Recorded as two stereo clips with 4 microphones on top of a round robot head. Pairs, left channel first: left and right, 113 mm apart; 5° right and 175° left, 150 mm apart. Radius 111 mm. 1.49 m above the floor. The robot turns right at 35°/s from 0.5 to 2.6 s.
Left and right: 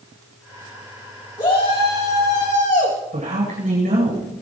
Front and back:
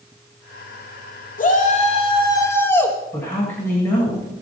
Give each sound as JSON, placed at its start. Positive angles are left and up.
{"t": 1.4, "sound": "a shout", "azimuth_deg": 30, "distance_m": 3.0}
{"t": 3.1, "sound": "a man speaking", "azimuth_deg": -80, "distance_m": 9.0}